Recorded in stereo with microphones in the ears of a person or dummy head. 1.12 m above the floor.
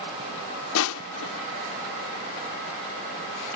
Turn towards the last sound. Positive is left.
turn(degrees=80)